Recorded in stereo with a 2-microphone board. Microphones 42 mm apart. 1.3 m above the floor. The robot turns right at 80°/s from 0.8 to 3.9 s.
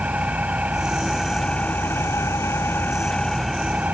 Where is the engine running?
30° right; by 4.0 s 145° right.